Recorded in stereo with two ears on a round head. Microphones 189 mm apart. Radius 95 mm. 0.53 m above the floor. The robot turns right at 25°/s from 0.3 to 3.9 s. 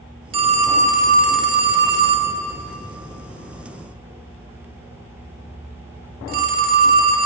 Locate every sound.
0.3 s a phone ringing: 30° right (ahead or behind), 0.7 m; by 7.3 s 45° right (ahead or behind), 0.7 m